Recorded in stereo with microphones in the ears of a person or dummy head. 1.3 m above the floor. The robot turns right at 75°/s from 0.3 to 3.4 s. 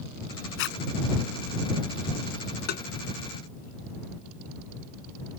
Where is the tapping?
60° left (ahead or behind); by 2.9 s 45° left (ahead or behind).